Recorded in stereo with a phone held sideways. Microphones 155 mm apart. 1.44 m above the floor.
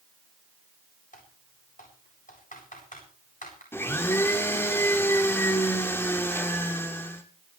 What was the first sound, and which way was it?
Typing on a keyboard, 60° left (ahead or behind).